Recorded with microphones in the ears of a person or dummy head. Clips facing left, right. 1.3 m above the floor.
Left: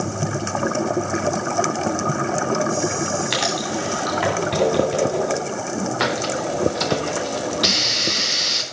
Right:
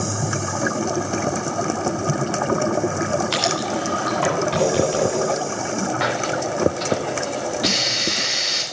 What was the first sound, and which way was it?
Writing, 25° left (ahead or behind).